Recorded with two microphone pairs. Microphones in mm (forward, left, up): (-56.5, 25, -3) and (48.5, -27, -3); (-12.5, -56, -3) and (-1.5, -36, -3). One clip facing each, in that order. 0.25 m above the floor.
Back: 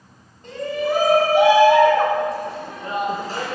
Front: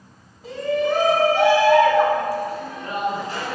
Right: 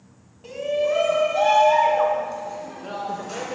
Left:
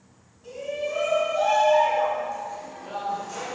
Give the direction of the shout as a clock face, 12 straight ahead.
4 o'clock.